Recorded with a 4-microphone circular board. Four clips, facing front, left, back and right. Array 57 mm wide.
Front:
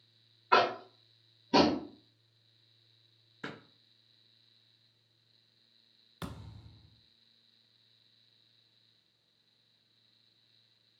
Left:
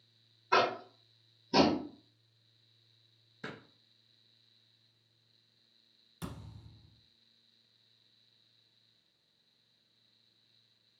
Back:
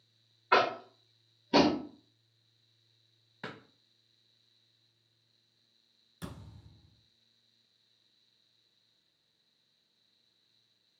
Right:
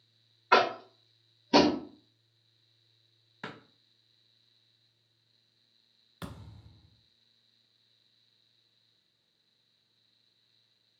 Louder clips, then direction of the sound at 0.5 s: Right 4 dB, even; 100° right.